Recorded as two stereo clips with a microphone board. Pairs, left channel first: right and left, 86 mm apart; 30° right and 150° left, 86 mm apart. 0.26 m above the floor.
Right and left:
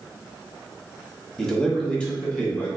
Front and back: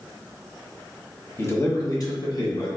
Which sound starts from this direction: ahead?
A man speaking, at 1.4 s.